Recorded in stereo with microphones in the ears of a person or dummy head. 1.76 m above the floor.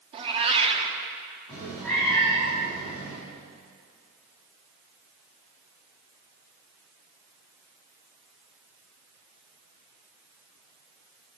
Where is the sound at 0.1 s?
40° right (ahead or behind), 2 m.